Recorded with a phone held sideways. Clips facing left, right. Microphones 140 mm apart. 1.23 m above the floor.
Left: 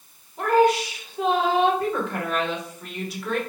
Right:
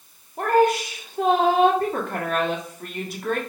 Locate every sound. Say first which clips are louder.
0.4 s a woman speaking: even; 50° right (ahead or behind), 2.5 m